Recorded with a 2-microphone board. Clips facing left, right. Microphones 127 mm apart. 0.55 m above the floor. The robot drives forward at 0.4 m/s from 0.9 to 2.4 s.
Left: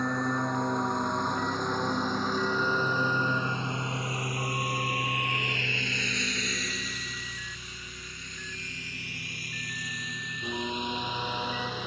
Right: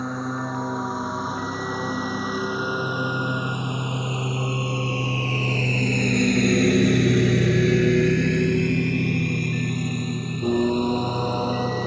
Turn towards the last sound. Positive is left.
turn(degrees=-40)  # may be behind; listen again after turning